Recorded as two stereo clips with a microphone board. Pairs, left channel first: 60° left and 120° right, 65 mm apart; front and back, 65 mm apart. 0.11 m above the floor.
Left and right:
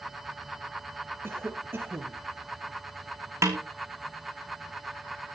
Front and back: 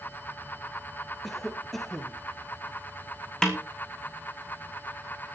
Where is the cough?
85° right, 2 m.